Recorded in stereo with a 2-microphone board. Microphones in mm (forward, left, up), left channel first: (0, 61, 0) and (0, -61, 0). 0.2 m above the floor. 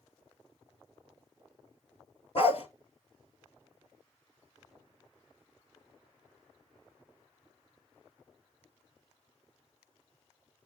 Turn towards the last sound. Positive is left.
turn(degrees=55)  # may be behind; listen again after turning